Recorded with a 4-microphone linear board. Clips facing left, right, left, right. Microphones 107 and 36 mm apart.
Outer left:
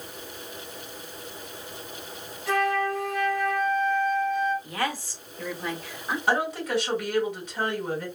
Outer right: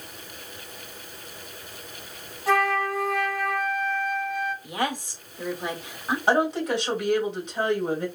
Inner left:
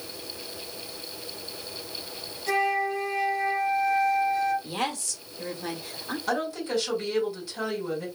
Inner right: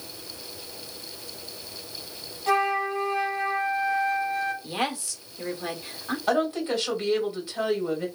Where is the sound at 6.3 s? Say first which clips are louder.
Outer right 3 dB, inner right 4 dB; 25° right (ahead or behind), 1.6 m.